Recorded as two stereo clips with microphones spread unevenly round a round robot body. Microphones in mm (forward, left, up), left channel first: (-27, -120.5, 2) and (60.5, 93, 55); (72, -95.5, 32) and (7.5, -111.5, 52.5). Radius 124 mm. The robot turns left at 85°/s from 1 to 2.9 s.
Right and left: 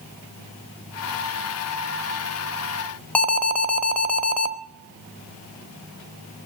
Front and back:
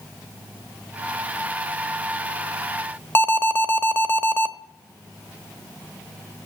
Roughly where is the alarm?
Ahead right.